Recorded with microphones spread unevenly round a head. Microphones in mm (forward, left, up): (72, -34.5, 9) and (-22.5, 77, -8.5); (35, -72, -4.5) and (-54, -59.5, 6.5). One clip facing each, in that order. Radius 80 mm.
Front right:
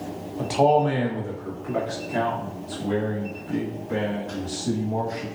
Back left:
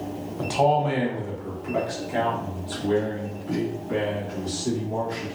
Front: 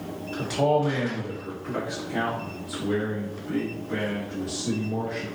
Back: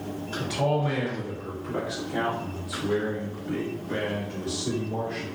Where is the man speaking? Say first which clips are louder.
Front right 2 dB, front 4 dB; 30° left, 0.8 m; by 5.3 s 90° left, 3 m.